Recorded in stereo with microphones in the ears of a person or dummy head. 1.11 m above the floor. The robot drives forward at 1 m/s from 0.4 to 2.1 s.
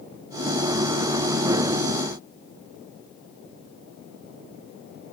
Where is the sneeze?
I don't hear a sneeze.